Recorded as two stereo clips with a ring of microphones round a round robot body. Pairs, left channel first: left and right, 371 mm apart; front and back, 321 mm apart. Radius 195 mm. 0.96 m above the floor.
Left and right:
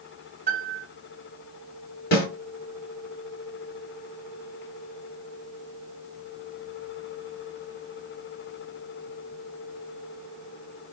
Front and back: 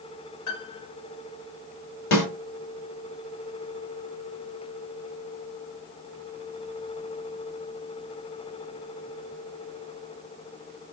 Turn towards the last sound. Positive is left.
turn(degrees=25)